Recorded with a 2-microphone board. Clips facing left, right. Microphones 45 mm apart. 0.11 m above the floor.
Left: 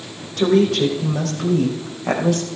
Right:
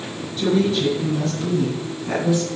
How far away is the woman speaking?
About 5 m.